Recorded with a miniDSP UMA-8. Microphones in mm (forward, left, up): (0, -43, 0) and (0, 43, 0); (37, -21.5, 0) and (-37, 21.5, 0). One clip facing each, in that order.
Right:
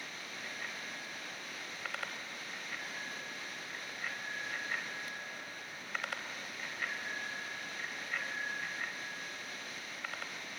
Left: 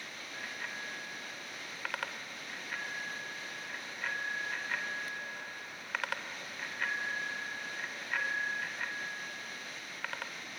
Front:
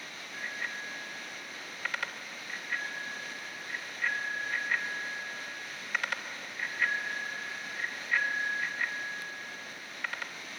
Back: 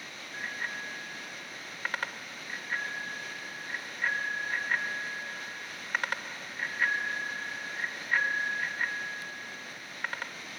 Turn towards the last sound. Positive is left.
turn(degrees=100)